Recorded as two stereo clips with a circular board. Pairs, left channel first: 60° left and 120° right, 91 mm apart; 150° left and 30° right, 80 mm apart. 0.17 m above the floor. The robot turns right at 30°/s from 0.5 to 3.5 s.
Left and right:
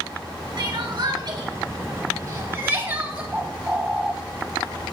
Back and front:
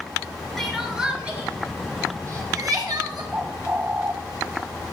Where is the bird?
60° right, 0.7 m; by 4.1 s 55° right, 0.7 m.